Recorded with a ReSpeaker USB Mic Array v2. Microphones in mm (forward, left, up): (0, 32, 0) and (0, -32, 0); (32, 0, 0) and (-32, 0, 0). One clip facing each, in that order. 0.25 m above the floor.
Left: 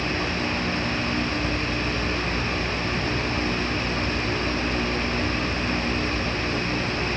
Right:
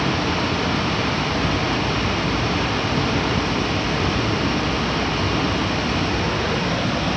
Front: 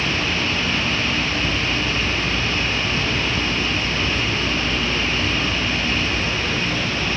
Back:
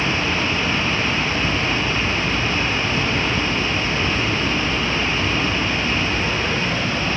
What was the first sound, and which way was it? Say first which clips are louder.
Running water: right 5 dB, back 2 dB; 110° right.